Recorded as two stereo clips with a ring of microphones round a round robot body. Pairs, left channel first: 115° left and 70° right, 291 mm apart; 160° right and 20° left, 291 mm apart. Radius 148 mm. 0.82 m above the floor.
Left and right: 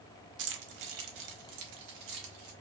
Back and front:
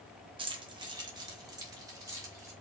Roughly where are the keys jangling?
Ahead right.